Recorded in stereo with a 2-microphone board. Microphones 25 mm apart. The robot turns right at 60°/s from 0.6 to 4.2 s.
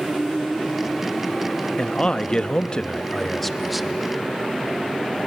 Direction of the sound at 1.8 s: 65° left.